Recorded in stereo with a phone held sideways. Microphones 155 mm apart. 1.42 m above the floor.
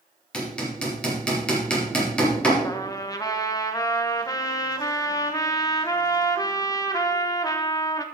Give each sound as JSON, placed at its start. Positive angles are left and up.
{"t": 0.3, "sound": "hammering", "side_deg": 5, "distance_m": 3.0}
{"t": 2.6, "sound": "a trumpet", "side_deg": 25, "distance_m": 0.9}